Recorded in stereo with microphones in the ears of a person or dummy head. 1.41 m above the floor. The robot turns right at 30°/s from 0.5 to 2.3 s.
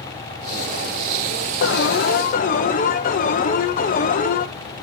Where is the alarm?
55° left (ahead or behind), 1.0 m; by 4.5 s 35° left (ahead or behind), 1.0 m.